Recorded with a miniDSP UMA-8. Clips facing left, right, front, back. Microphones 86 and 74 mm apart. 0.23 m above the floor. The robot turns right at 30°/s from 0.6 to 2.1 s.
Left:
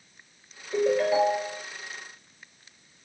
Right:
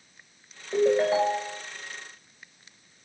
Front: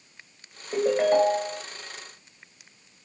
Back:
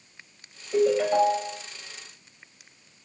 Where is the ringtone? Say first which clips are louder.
Right 1 dB, even; 40° right, 1.4 m; by 1.6 s 15° right, 1.4 m.